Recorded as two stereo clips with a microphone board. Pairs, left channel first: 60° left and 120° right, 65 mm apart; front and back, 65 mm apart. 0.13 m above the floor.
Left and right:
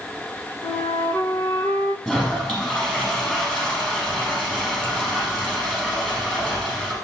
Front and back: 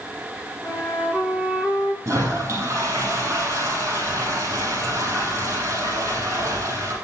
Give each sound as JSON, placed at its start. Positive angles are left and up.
{"t": 0.6, "sound": "a flute", "azimuth_deg": 70, "distance_m": 1.8}
{"t": 2.0, "sound": "a toilet flushing", "azimuth_deg": 135, "distance_m": 4.0}